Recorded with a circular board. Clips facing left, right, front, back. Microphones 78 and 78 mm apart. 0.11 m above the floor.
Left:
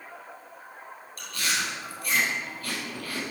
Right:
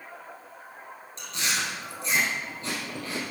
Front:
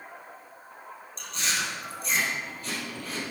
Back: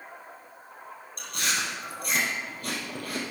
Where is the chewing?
155° right, 2 m.